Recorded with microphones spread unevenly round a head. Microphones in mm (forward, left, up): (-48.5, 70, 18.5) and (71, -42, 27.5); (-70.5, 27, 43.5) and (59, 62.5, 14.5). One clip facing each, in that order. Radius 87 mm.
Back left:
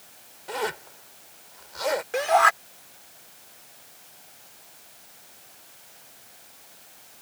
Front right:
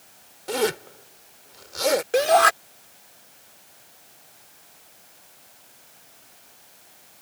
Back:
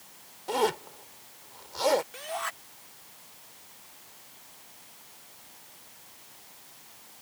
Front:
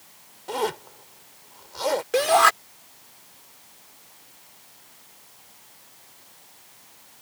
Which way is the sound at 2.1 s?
Straight ahead.